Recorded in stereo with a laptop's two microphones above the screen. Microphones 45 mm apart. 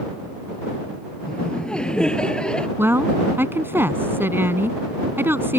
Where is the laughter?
20° left (ahead or behind).